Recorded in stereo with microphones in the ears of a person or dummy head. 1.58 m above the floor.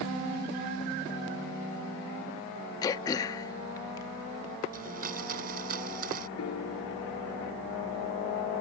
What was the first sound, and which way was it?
Throat clearing, 20° left (ahead or behind).